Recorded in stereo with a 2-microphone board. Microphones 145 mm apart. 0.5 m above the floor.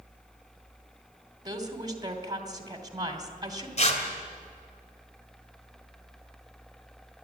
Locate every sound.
1.4 s a woman speaking: 25° right (ahead or behind), 2.5 m
3.8 s tearing paper: 50° left (ahead or behind), 2 m